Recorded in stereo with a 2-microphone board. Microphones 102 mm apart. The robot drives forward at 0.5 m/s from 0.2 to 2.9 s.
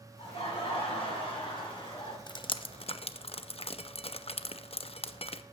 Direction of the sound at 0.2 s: 70° left (ahead or behind).